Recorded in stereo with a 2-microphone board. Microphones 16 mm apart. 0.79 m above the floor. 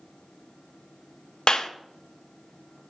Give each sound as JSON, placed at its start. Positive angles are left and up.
{"t": 1.5, "sound": "a clap", "side_deg": 55, "distance_m": 0.6}